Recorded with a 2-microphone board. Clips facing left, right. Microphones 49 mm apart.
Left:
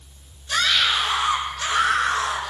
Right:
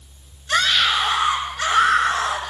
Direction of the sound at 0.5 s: 40° right (ahead or behind).